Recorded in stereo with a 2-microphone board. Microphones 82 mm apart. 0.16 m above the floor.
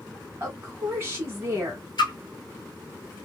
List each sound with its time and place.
0.4 s a woman speaking: 30° right (ahead or behind), 1.2 m
2.0 s a splash: 65° left (ahead or behind), 0.8 m